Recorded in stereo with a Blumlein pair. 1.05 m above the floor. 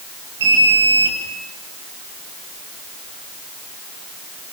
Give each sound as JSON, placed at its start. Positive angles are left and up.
{"t": 0.4, "sound": "an alarm", "azimuth_deg": -60, "distance_m": 7.5}